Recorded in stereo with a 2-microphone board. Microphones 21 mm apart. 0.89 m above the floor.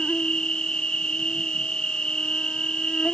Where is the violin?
No violin in this recording.